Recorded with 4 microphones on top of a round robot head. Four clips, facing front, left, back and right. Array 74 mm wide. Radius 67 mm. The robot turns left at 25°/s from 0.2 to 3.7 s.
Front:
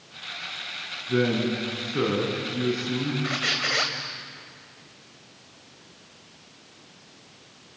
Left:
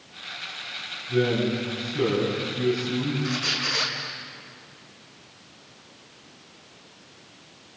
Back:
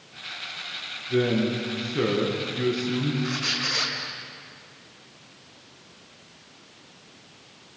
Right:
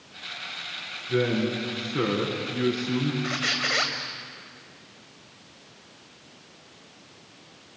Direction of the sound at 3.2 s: 40° right.